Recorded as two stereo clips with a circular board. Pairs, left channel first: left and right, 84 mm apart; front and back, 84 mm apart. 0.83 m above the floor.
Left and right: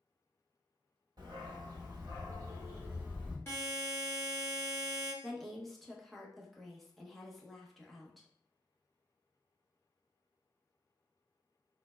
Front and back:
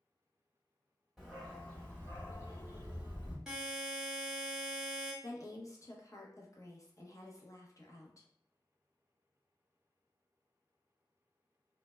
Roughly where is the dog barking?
Right.